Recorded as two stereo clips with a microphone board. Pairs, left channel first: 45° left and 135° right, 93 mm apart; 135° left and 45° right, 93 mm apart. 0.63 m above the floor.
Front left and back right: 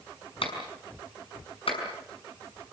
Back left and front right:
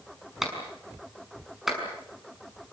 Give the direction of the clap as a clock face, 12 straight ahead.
11 o'clock.